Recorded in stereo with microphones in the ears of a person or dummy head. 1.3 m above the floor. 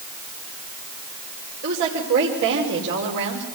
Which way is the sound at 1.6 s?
75° right (ahead or behind).